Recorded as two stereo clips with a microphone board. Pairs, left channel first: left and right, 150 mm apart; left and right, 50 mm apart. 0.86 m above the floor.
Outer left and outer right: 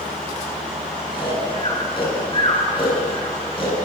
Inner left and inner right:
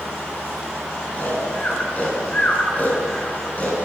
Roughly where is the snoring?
Left.